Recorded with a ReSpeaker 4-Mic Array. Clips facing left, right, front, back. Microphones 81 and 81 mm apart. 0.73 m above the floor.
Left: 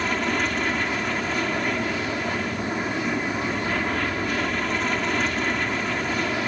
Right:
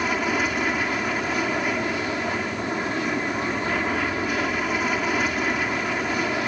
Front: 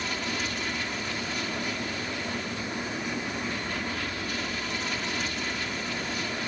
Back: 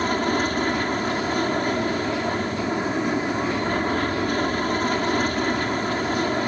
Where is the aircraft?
170° right.